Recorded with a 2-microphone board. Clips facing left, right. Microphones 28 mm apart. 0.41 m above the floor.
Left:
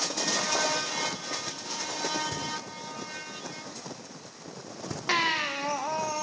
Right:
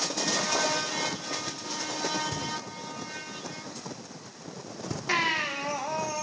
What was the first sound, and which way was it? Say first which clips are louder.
Knocking: even; 5° left (ahead or behind).